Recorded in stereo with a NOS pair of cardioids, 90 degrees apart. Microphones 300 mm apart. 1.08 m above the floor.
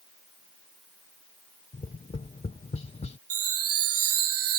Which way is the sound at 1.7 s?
20° left.